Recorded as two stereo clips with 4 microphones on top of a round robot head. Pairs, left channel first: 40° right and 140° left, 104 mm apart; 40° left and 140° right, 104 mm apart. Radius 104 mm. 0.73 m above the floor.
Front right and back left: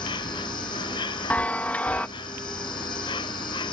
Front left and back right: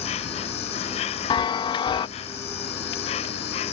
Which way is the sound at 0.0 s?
10° left.